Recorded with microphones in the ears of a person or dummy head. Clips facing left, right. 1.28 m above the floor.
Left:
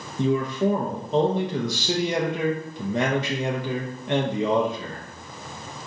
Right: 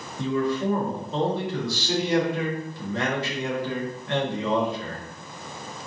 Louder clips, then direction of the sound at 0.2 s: Left 2 dB; 20° left (ahead or behind).